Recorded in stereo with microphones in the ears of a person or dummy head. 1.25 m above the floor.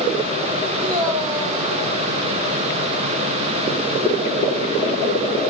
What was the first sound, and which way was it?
A man speaking, 20° right (ahead or behind).